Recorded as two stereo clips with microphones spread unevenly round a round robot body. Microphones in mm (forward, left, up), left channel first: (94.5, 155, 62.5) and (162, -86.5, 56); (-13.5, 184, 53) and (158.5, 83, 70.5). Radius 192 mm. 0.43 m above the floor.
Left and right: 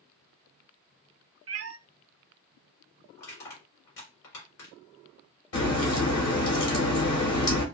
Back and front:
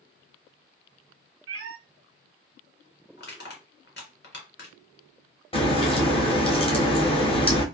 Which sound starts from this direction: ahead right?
A cat meowing, at 1.5 s.